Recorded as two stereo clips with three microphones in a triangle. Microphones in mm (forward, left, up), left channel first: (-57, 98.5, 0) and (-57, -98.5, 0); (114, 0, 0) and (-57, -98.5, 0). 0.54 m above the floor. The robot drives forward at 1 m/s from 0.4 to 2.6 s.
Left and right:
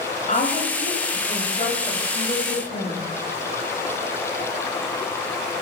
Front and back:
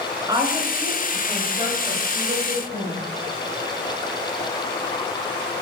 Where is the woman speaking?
140° left, 8.5 m; by 3.0 s 150° left, 10 m.